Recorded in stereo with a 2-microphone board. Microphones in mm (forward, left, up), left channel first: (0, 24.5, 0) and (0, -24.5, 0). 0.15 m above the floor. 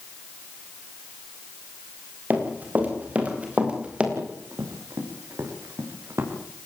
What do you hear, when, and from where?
2.3 s running footsteps: 35° right (ahead or behind), 8.5 m; by 4.1 s 25° right (ahead or behind), 7.5 m
4.2 s running footsteps: 75° right (ahead or behind), 7.5 m; by 6.3 s 65° right (ahead or behind), 7 m